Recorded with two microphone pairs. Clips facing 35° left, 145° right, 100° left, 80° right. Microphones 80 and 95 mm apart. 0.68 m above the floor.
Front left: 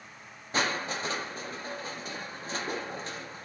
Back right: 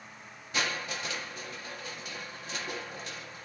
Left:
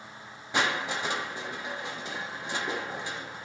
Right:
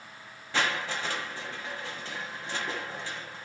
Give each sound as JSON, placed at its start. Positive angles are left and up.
{"t": 0.5, "sound": "crushing", "azimuth_deg": 40, "distance_m": 0.8}